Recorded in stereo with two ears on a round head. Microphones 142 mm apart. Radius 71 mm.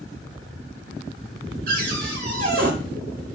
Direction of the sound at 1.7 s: 60° right (ahead or behind).